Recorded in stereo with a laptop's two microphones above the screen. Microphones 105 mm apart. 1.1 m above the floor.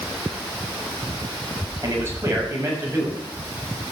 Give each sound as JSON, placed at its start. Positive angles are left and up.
{"t": 1.8, "sound": "a man speaking", "side_deg": -30, "distance_m": 7.0}